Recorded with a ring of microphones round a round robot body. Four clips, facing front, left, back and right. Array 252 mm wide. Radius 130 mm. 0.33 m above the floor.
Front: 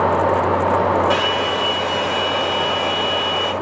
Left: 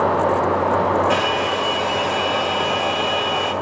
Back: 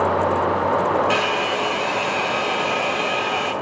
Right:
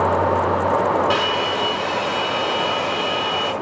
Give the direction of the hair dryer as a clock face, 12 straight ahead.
4 o'clock.